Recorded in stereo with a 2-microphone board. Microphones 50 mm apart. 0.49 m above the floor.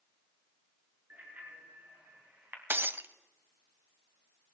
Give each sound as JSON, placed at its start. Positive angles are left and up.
{"t": 1.1, "sound": "a bicycle bell", "side_deg": -40, "distance_m": 5.0}
{"t": 2.7, "sound": "breaking glass", "side_deg": -45, "distance_m": 0.5}